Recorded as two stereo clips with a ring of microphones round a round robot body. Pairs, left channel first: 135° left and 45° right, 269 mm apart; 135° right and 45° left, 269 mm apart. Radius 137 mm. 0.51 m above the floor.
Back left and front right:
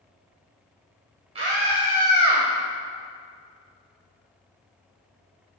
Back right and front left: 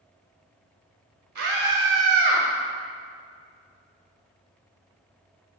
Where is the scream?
25° left, 1.8 m; by 2.5 s 10° left, 1.4 m.